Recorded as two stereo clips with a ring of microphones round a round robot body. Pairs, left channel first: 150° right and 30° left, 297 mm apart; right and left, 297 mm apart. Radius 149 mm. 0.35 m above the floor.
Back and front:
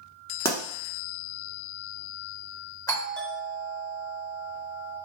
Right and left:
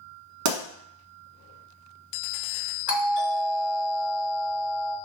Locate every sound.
0.5 s a pop: 130° left, 0.8 m
2.9 s a doorbell: 85° right, 1.4 m